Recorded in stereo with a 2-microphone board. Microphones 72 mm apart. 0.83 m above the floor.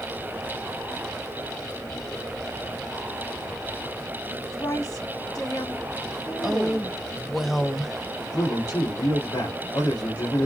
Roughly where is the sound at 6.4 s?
Centre.